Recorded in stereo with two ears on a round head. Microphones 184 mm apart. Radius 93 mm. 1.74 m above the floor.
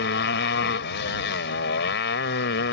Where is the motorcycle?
55° left (ahead or behind).